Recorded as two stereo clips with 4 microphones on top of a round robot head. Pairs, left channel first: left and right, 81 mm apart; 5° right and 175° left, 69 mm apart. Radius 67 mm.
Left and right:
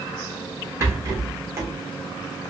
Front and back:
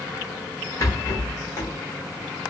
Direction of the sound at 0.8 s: 45° right.